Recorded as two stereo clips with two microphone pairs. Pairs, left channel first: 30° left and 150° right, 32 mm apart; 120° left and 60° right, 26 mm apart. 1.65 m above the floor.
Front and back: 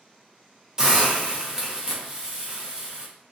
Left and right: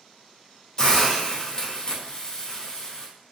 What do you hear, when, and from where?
0.8 s a hiss: 160° left, 0.8 m